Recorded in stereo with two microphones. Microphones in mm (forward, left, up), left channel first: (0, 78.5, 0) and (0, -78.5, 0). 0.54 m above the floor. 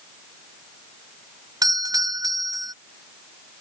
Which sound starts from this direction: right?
A doorbell, at 1.6 s.